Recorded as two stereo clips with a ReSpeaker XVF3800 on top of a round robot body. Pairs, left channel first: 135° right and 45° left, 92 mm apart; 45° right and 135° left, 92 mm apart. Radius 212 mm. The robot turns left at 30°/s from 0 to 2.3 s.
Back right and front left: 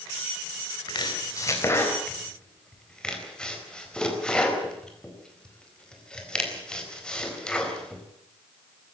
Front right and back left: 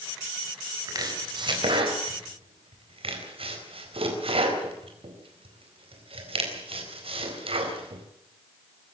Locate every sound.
0.9 s chopping: 175° right, 4.5 m; by 8.0 s 145° left, 4.5 m